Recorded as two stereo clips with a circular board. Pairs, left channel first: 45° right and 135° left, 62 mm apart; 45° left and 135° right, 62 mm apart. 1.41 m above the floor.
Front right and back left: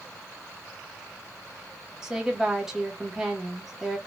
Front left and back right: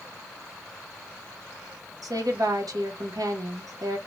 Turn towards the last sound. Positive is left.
turn(degrees=-140)